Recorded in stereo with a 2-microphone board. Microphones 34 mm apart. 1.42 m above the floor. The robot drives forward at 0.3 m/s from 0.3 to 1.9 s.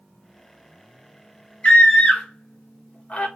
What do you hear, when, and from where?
1.6 s a scream: 45° left (ahead or behind), 1.2 m; by 3.3 s 40° left (ahead or behind), 1.2 m